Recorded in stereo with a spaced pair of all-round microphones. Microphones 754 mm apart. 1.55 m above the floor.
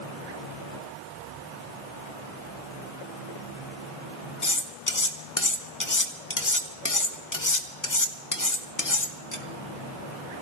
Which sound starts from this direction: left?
Cutlery clinking, at 4.4 s.